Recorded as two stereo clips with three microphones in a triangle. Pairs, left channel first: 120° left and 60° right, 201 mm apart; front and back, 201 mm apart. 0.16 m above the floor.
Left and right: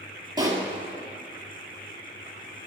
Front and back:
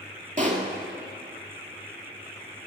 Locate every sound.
0.4 s a pop: 130° right, 2.0 m